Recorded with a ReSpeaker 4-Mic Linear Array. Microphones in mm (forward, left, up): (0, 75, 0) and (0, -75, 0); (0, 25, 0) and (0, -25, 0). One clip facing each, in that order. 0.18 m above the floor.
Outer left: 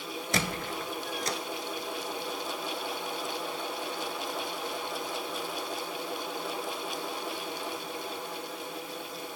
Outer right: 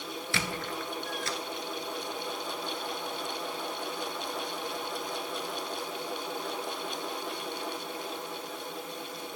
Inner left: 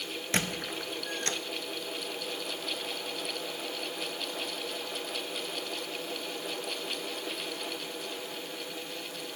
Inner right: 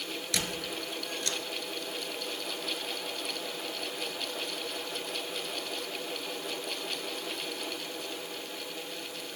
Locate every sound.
0.3 s a squeak: 40° left (ahead or behind), 0.5 m